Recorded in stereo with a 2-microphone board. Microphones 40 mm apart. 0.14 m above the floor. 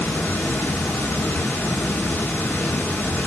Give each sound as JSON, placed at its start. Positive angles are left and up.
{"t": 0.0, "sound": "running water", "side_deg": 50, "distance_m": 1.2}